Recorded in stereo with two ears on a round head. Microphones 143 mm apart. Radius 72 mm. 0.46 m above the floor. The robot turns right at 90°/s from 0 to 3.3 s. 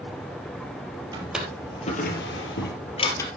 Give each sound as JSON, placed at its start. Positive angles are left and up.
{"t": 1.1, "sound": "a drawer", "side_deg": -25, "distance_m": 3.5}